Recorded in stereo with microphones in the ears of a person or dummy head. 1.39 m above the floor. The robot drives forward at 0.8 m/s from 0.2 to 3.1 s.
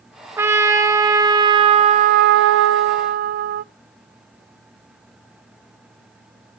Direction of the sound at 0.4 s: 15° right (ahead or behind).